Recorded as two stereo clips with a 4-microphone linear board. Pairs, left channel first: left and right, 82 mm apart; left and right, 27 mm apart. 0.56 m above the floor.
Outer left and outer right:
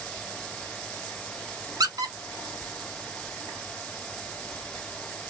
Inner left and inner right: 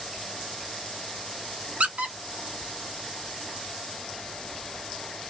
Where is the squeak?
50° right (ahead or behind), 0.8 m.